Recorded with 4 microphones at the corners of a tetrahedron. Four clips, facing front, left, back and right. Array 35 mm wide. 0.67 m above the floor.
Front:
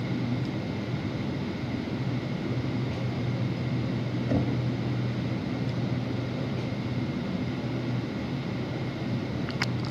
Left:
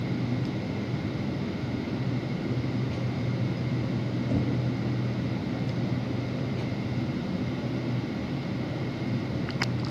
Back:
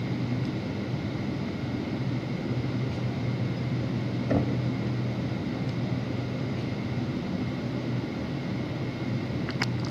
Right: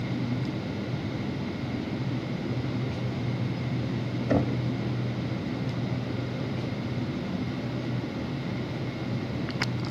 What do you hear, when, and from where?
4.3 s knocking: 105° right, 1.8 m